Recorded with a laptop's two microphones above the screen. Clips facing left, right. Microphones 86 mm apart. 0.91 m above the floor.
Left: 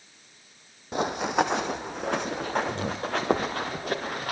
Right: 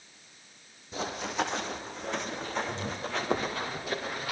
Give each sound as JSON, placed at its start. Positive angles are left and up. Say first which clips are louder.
{"t": 0.9, "sound": "running footsteps", "louder": "left 7 dB", "side_deg": 60, "distance_m": 1.8}